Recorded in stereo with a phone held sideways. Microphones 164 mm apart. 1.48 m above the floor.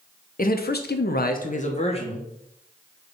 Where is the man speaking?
60° left (ahead or behind), 0.5 m; by 2.3 s 30° left (ahead or behind), 0.9 m.